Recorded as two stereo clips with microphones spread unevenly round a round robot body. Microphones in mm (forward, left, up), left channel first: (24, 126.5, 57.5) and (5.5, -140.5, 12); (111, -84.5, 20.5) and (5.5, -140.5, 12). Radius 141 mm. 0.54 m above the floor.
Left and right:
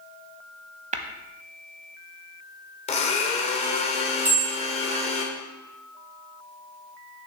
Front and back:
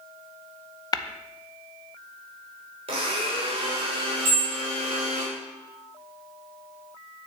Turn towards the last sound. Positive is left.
turn(degrees=180)